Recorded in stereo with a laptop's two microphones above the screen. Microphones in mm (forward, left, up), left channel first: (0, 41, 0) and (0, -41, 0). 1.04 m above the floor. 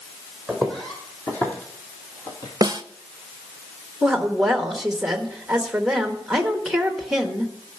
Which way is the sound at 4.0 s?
5° right (ahead or behind).